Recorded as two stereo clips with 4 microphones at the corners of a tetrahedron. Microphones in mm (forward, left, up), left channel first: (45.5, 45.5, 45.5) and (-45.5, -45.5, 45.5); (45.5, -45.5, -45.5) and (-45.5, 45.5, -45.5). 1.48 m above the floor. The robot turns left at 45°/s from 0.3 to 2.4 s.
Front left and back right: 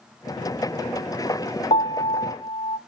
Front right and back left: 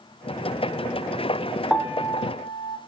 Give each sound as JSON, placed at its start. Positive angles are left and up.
{"t": 1.7, "sound": "a piano", "azimuth_deg": 45, "distance_m": 0.8}